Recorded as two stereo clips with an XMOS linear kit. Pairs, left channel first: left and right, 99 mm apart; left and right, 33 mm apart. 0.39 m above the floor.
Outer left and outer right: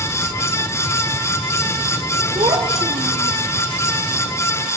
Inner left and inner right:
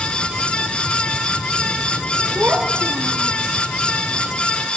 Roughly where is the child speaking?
Right.